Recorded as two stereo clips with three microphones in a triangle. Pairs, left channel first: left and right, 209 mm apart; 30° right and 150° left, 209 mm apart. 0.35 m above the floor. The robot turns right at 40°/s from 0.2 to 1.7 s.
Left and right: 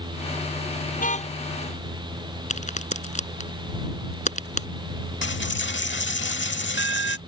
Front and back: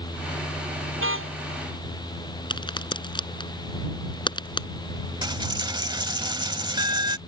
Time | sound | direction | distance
1.0 | a car horn | 135° left | ?
2.5 | a crack | 35° left | ?
5.2 | a dropped coin | 85° left | ?